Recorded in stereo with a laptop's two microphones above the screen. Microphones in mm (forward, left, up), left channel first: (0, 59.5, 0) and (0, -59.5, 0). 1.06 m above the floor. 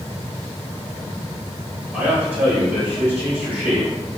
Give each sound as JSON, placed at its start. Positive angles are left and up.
{"t": 1.9, "sound": "a man speaking", "side_deg": -10, "distance_m": 1.2}